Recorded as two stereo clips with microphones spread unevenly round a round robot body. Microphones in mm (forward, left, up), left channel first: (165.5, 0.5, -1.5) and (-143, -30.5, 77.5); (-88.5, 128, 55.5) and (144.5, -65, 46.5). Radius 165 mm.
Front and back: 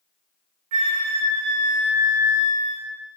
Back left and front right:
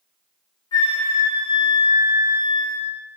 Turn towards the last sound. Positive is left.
turn(degrees=-145)